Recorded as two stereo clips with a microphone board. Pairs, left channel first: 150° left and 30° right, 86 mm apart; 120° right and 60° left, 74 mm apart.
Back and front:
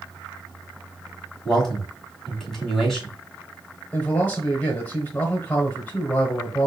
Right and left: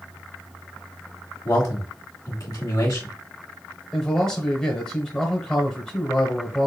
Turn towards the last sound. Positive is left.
turn(degrees=175)